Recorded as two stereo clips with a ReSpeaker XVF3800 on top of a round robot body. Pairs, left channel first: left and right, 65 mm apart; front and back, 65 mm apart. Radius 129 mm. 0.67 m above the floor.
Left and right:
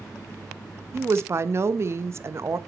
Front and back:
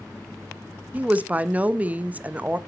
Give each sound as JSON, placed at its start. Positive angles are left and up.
{"t": 0.9, "sound": "a woman speaking", "azimuth_deg": -120, "distance_m": 0.8}